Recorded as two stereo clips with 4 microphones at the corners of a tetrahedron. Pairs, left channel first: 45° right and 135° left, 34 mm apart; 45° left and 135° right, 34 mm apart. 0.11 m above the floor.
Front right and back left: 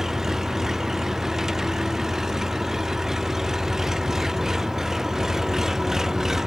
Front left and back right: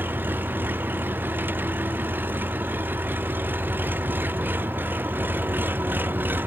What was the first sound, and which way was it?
An engine running, 145° right.